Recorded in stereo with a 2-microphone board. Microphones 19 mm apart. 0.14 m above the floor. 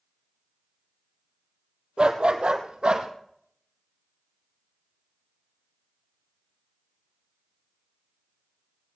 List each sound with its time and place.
2.0 s a dog barking: 65° right (ahead or behind), 1.8 m; by 3.1 s 75° right (ahead or behind), 2 m